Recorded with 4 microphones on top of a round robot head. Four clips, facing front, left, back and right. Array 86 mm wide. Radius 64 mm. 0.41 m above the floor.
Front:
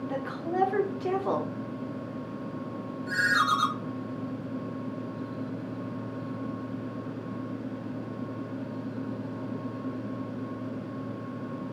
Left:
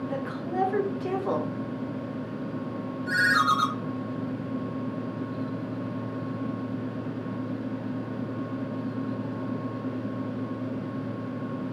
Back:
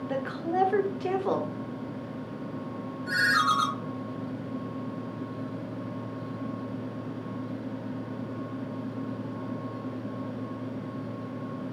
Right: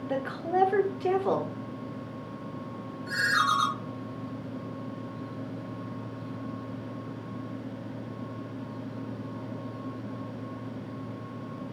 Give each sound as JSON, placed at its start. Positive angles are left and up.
{"t": 0.1, "sound": "a woman speaking", "azimuth_deg": -145, "distance_m": 0.8}
{"t": 3.1, "sound": "a ringtone", "azimuth_deg": 145, "distance_m": 1.8}